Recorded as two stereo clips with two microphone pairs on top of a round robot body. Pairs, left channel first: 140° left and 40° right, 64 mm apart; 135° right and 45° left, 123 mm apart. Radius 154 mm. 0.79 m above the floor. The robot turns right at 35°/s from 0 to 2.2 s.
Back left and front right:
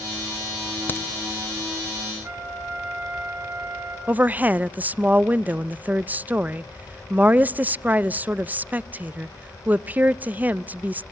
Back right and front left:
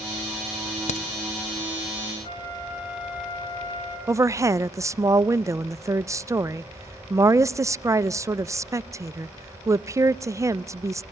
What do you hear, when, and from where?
0.9 s a crack: 160° right, 1.0 m; by 1.1 s 155° right, 1.0 m
2.2 s a flute: 80° right, 7.5 m
4.1 s a woman speaking: 5° left, 0.5 m